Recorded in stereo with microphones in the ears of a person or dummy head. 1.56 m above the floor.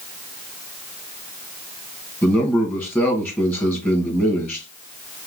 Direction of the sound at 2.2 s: 10° left (ahead or behind).